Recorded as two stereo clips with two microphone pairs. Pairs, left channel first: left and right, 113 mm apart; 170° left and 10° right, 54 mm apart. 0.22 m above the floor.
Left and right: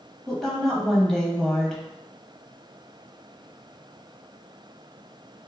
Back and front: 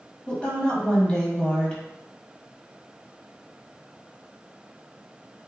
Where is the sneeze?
No sneeze in this recording.